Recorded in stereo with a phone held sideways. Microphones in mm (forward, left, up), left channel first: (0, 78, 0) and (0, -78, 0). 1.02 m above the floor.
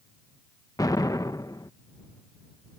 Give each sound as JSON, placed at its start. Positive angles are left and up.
{"t": 0.8, "sound": "an explosion", "side_deg": 25}